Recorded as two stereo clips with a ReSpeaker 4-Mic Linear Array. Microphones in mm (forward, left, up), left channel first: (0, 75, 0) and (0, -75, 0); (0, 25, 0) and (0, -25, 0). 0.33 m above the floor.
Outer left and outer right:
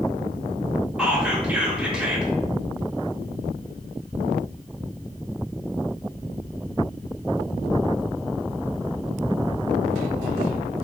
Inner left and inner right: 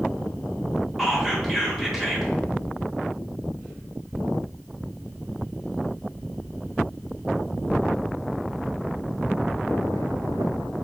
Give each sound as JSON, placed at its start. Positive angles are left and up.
{"t": 1.0, "sound": "whispering", "side_deg": -5, "distance_m": 0.9}